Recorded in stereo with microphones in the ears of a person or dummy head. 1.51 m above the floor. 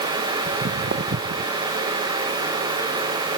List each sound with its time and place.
0.5 s footsteps: 50° right (ahead or behind); by 1.5 s 60° right (ahead or behind)